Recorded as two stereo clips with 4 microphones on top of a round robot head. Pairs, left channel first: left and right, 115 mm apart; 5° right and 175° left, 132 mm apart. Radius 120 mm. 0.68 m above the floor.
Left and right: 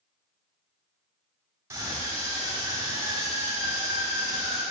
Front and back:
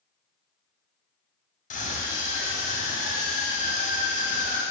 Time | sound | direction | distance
1.7 | a scream | 20° right | 3 m